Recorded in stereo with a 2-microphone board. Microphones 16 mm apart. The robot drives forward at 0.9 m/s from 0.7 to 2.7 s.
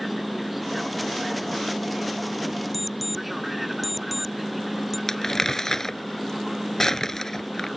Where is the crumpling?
35° left (ahead or behind).